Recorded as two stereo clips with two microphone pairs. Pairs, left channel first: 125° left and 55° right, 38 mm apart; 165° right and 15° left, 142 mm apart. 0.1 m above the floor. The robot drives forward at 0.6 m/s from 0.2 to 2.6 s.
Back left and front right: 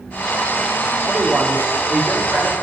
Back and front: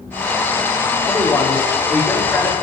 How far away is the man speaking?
About 4 m.